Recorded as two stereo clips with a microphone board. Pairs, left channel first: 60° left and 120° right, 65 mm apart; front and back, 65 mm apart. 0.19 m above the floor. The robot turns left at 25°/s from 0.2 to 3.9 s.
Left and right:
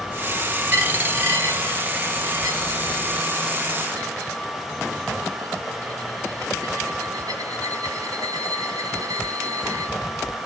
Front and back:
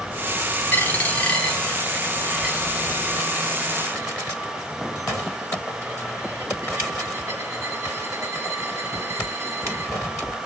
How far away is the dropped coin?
About 1.5 m.